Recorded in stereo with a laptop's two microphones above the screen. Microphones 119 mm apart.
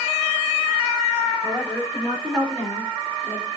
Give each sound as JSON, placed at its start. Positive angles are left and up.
{"t": 1.4, "sound": "a woman speaking", "side_deg": 10, "distance_m": 3.5}